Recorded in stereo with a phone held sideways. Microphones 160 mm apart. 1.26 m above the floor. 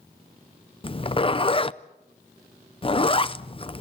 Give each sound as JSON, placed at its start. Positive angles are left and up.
{"t": 0.8, "sound": "a zipper", "side_deg": 35, "distance_m": 0.6}